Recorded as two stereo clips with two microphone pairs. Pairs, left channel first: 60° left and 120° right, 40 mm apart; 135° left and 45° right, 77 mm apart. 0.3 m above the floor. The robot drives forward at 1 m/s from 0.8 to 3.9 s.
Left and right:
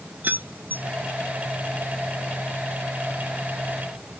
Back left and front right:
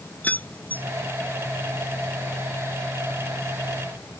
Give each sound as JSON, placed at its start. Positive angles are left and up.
{"t": 0.2, "sound": "keys jangling", "azimuth_deg": -160}